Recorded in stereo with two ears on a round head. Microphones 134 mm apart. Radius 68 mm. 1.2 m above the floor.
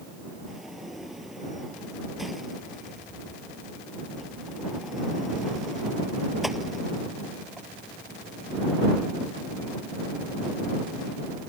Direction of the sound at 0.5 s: Centre (ahead or behind).